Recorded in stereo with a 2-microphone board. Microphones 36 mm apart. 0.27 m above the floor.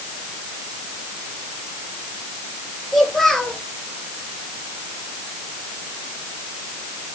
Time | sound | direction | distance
2.9 | a child speaking | 5° left (ahead or behind) | 5.5 m